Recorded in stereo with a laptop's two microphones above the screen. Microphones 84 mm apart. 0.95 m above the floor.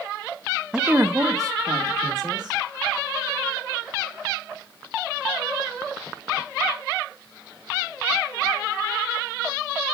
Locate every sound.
0.7 s a woman speaking: 5° right (ahead or behind), 0.7 m; by 2.6 s 55° right (ahead or behind), 3 m